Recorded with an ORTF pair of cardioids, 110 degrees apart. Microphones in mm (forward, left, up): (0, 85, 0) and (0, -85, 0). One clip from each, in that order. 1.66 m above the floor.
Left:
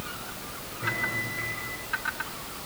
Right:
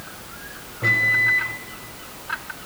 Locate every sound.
0.8 s a microwave: 50° right, 4.5 m